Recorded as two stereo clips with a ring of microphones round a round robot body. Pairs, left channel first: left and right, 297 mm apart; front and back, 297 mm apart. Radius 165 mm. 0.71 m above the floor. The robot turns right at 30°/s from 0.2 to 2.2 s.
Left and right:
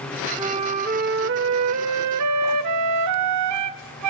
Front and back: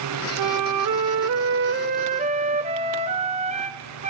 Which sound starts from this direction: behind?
A flute, at 0.4 s.